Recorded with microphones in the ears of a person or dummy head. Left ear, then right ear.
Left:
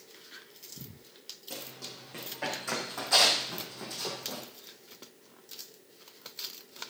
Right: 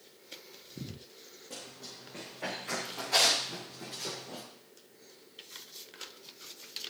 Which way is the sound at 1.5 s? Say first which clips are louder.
Left 2 dB; 30° left (ahead or behind).